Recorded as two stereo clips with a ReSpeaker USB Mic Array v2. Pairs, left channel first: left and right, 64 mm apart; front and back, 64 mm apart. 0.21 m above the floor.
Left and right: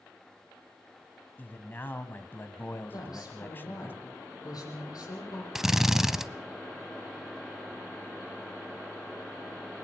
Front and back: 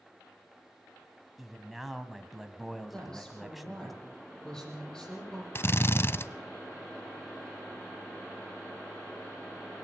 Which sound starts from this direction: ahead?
A drill, at 5.5 s.